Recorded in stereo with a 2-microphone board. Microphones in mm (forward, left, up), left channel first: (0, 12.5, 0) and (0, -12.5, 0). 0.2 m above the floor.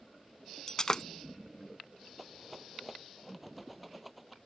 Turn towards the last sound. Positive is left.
turn(degrees=-5)  # may be behind; listen again after turning